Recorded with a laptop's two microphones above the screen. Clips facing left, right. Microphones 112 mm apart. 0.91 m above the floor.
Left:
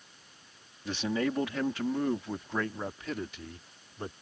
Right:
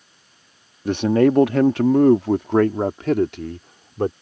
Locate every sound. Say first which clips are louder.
0.8 s a man speaking: right 14 dB; 55° right (ahead or behind); by 4.1 s 70° right (ahead or behind)